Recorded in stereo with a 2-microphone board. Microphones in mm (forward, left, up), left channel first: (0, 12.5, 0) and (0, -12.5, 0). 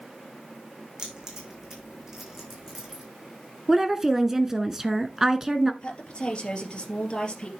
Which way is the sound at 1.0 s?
25° right (ahead or behind).